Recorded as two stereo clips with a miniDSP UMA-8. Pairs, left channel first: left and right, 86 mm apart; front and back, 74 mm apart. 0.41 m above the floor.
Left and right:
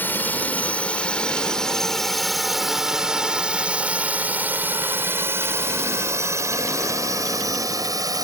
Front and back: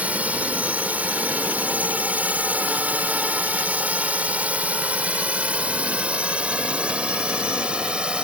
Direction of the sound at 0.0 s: 130° left.